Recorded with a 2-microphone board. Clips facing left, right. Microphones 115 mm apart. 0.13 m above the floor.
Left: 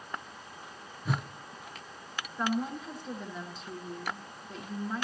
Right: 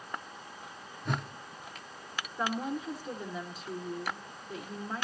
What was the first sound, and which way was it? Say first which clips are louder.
A whoosh: left 1 dB; 5° left (ahead or behind).